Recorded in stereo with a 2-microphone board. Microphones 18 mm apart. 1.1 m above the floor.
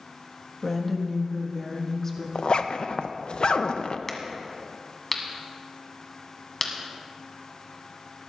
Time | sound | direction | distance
0.6 | a woman speaking | 10° left (ahead or behind) | 1.4 m
2.4 | a zipper | 60° left (ahead or behind) | 0.5 m
4.1 | a crack | 15° left (ahead or behind) | 1.7 m